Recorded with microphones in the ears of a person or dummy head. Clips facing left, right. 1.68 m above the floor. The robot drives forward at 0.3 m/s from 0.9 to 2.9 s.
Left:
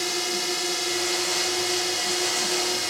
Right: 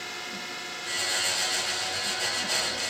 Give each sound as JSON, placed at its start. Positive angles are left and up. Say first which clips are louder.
{"t": 0.0, "sound": "a drone", "louder": "left 12 dB", "side_deg": 65}